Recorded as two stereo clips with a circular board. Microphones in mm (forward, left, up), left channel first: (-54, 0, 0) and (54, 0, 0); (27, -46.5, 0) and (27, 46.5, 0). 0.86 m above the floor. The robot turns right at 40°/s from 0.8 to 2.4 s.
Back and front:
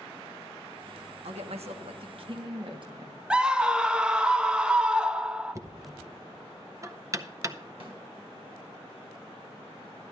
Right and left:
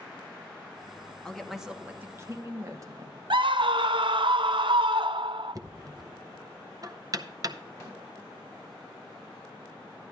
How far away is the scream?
About 0.5 m.